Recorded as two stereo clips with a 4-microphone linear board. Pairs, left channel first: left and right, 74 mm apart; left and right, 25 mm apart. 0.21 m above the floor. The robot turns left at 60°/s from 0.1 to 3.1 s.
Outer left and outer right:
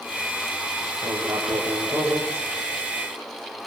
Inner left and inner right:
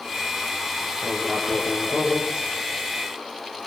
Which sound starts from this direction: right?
Writing, at 1.0 s.